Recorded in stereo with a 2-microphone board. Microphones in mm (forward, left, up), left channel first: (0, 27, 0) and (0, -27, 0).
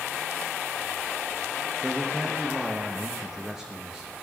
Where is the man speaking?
Centre (ahead or behind), 1.3 m.